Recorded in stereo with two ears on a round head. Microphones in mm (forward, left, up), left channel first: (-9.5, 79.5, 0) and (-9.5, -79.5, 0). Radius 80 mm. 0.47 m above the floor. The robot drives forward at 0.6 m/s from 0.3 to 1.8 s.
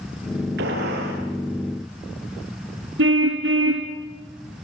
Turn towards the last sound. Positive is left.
turn(degrees=-70)  # may be behind; listen again after turning